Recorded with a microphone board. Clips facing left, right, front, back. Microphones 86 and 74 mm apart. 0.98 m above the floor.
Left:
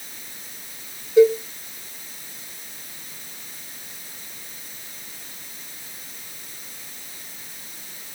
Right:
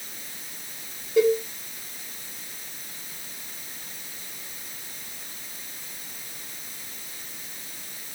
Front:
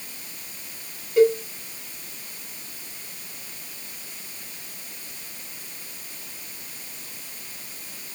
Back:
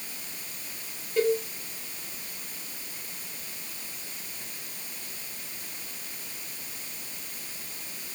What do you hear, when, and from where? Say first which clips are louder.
1.2 s a cowbell: left 6 dB, front 7 dB; 80° right, 1.5 m